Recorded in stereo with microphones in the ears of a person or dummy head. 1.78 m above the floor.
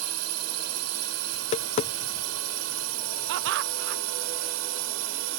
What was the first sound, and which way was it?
A drone, 85° right.